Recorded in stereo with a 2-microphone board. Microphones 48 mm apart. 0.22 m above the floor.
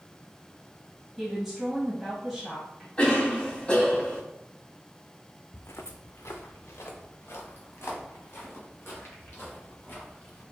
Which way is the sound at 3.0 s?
20° left (ahead or behind).